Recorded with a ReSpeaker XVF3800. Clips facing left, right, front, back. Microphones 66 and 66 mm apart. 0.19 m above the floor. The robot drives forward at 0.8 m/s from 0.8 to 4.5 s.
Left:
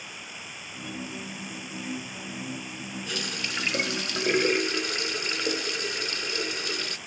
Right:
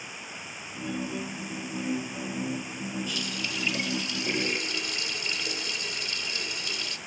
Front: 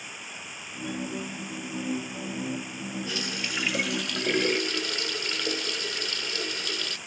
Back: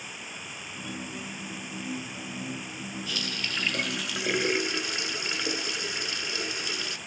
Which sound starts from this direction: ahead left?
A running tap, at 3.1 s.